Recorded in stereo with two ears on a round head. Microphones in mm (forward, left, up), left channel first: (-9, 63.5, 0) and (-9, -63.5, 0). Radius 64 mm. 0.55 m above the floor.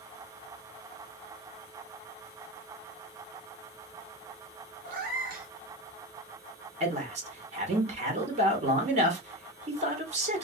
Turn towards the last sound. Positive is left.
turn(degrees=-50)  # may be behind; listen again after turning